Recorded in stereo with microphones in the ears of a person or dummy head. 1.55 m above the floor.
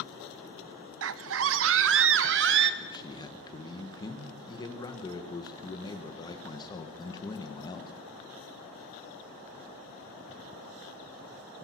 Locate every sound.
1.0 s a scream: 75° right (ahead or behind), 0.7 m; by 2.7 s 70° right (ahead or behind), 1.7 m
2.8 s a man speaking: 20° left (ahead or behind), 1.7 m